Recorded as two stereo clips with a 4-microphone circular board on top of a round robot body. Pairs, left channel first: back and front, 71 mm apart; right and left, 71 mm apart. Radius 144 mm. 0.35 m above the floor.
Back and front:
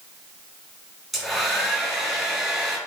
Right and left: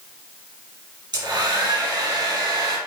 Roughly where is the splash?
No splash in this recording.